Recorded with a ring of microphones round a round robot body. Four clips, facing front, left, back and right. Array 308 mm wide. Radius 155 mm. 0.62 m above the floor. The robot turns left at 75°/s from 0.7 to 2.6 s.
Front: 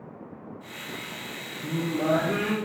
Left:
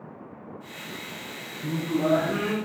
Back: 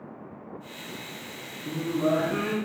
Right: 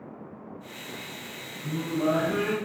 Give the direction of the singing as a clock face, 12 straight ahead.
10 o'clock.